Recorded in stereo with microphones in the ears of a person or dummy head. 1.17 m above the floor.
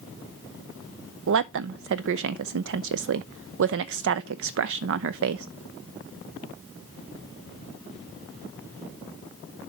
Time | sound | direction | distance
1.3 | a woman speaking | 60° right (ahead or behind) | 0.5 m